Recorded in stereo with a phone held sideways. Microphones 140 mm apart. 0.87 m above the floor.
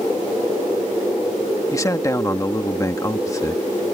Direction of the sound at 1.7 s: 20° left (ahead or behind).